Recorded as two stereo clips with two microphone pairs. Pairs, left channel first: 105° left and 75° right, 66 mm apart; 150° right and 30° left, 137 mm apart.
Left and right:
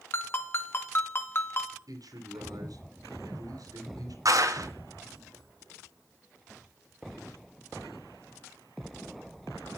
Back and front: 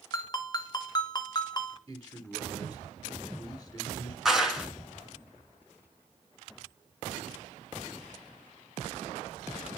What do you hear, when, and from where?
0.1 s a ringtone: 150° left, 1.7 m
1.9 s a man speaking: 70° right, 3 m
4.2 s a clap: 60° right, 2.5 m